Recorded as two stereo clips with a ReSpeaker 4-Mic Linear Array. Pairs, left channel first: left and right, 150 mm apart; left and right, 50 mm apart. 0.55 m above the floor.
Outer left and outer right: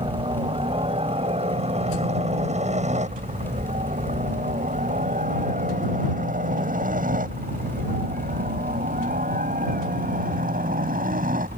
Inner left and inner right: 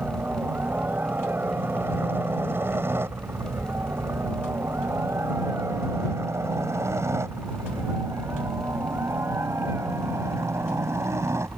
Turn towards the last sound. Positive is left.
turn(degrees=-65)  # may be behind; listen again after turning